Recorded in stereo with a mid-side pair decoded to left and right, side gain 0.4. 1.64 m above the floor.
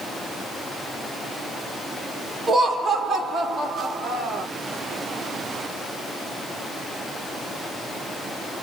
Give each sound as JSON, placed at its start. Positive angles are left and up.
{"t": 2.5, "sound": "laughter", "azimuth_deg": -50, "distance_m": 1.0}